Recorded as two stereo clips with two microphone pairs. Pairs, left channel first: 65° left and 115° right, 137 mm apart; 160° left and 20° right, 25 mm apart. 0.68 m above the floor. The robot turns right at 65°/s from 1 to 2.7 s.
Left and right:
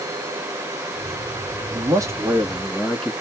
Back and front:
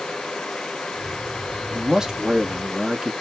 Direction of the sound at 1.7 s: 80° right.